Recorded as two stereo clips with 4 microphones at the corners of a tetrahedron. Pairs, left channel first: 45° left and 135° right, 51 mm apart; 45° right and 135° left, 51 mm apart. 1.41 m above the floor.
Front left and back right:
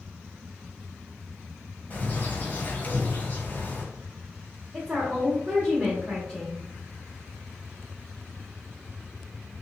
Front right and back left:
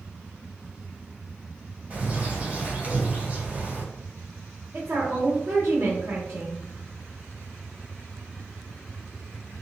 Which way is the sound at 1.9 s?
80° left.